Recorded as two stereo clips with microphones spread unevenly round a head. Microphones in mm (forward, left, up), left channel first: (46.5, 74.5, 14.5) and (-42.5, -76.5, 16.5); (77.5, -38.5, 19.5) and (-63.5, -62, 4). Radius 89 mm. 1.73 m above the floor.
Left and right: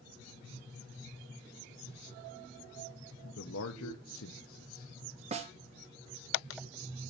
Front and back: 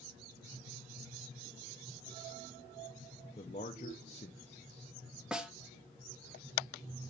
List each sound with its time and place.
3.4 s a man speaking: 65° left, 1.1 m
5.3 s a snare drum: 80° right, 1.0 m